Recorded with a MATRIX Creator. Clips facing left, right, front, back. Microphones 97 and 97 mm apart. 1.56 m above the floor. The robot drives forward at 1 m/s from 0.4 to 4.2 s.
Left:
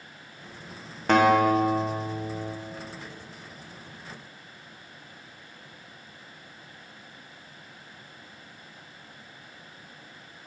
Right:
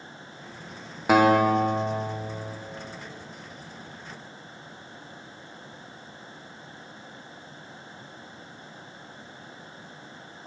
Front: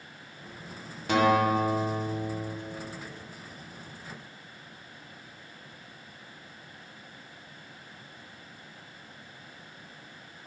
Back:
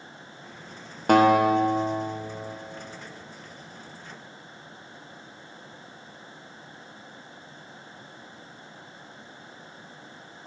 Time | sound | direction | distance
1.1 | a guitar | 170° right | 0.7 m